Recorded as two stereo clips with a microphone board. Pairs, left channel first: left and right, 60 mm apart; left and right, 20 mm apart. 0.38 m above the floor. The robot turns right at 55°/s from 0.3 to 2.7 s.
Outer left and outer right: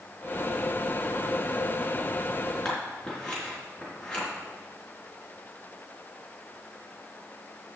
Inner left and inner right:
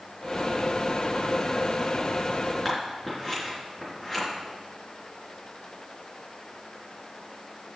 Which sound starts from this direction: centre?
Scissors, at 2.6 s.